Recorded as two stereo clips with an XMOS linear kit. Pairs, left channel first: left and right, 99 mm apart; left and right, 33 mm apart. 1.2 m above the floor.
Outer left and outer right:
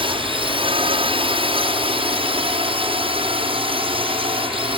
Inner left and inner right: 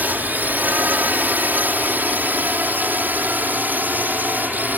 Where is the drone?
65° right (ahead or behind).